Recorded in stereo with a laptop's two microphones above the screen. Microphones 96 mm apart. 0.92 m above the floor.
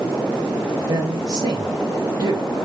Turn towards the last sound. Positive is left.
turn(degrees=-45)  # may be behind; listen again after turning